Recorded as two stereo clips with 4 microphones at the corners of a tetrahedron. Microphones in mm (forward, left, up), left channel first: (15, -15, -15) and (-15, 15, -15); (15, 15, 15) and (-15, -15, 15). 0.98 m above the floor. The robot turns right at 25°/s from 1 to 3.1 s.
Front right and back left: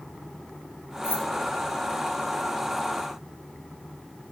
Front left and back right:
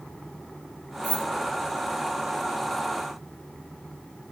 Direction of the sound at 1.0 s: 15° right.